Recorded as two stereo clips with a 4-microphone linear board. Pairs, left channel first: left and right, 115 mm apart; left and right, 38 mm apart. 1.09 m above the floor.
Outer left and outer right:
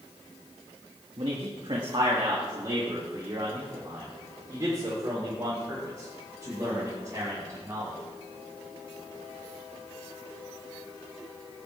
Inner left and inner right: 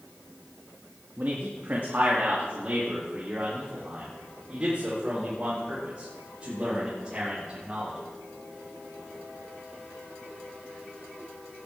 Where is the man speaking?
55° right (ahead or behind), 2 m; by 8.0 s 25° right (ahead or behind), 6 m.